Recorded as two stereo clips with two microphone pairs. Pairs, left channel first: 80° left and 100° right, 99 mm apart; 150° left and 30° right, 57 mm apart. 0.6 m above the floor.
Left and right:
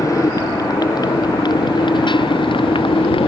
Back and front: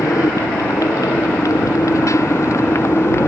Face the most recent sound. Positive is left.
turn(degrees=105)